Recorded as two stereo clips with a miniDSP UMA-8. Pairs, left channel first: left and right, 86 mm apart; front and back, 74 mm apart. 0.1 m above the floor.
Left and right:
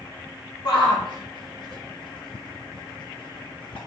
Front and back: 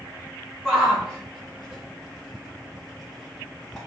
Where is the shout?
90° left, 4 m.